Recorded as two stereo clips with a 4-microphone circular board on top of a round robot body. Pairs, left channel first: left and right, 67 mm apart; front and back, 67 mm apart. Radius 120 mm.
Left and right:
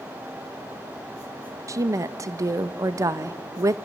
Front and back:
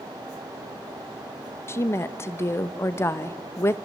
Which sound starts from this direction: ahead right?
A woman speaking, at 1.7 s.